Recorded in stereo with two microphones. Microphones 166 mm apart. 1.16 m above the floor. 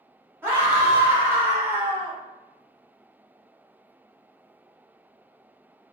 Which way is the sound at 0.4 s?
15° right (ahead or behind).